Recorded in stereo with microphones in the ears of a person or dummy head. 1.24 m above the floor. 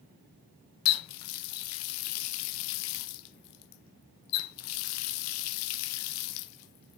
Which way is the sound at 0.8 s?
70° left (ahead or behind).